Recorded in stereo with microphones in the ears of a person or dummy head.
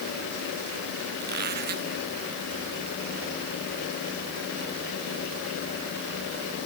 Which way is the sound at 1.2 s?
50° right (ahead or behind).